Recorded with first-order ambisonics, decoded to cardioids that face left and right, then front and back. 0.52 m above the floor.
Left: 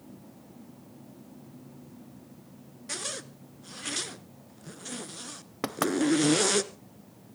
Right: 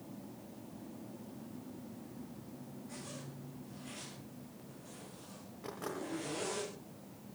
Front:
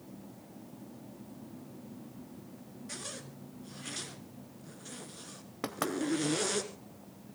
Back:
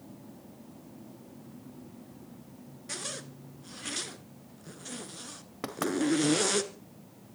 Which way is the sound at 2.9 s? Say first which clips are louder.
Left 15 dB, back 5 dB; 110° left.